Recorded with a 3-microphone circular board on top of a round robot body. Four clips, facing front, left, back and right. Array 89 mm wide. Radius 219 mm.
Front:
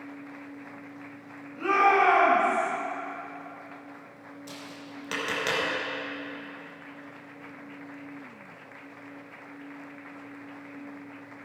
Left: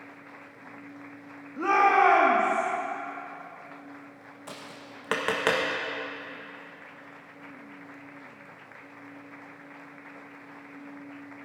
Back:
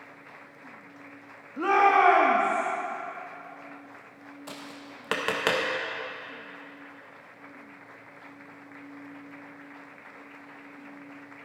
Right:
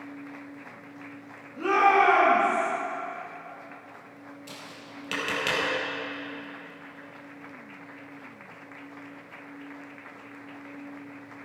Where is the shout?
150° left, 3 m; by 2.7 s 140° left, 3.5 m.